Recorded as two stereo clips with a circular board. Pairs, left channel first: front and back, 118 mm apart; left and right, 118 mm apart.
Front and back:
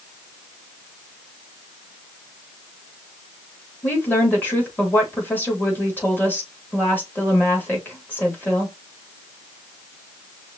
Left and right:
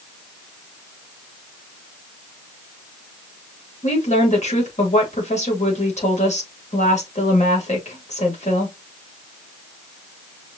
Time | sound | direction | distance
3.8 | a woman speaking | 75° left | 3 m